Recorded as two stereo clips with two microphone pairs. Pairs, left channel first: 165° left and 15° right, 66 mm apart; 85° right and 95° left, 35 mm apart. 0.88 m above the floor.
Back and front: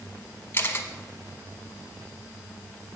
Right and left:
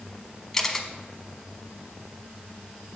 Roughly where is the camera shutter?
Behind.